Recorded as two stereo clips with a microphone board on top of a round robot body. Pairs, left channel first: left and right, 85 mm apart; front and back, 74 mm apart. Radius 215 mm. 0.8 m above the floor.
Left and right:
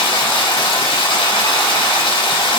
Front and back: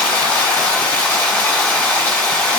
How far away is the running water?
About 3 m.